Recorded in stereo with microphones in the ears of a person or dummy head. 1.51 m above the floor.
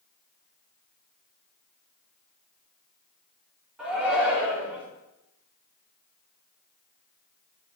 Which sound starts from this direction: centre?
A shout, at 3.8 s.